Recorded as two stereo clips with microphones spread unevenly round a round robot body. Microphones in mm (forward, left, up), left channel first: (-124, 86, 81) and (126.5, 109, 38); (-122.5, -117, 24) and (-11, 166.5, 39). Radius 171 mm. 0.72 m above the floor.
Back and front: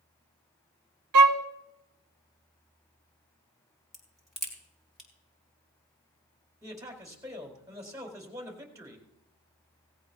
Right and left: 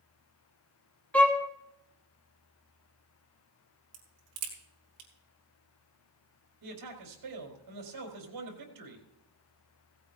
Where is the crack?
95° left, 4.5 m.